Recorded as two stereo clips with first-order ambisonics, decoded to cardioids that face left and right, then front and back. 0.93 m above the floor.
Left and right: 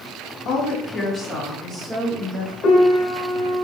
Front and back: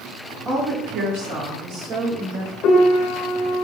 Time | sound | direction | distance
0.5 | a woman speaking | 120° left | 1.5 m
2.6 | a piano | 35° left | 1.1 m